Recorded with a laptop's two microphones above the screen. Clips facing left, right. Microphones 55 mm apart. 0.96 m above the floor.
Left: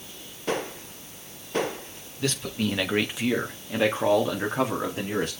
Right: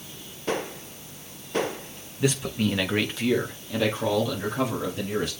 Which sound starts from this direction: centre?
A man speaking, at 2.2 s.